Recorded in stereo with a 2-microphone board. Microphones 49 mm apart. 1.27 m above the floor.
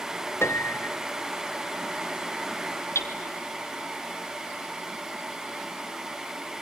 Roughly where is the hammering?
Left.